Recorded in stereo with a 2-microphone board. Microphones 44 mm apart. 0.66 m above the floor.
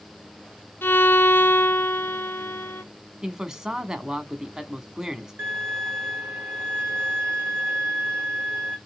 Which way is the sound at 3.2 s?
20° right (ahead or behind).